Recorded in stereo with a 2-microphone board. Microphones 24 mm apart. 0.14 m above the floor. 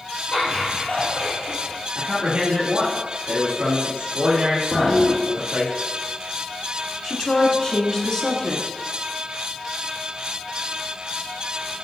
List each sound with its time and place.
0.3 s laughter: 55° left (ahead or behind), 2.5 m
1.9 s a man speaking: 50° right (ahead or behind), 2.5 m
4.7 s a toilet flushing: 25° left (ahead or behind), 0.9 m
7.0 s a woman speaking: 30° left (ahead or behind), 1.3 m